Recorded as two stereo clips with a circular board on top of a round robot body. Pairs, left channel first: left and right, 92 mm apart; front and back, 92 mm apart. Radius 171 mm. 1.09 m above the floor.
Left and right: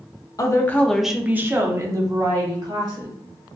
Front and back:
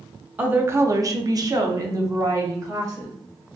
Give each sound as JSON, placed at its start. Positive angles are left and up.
{"t": 0.4, "sound": "a woman speaking", "azimuth_deg": 115, "distance_m": 0.6}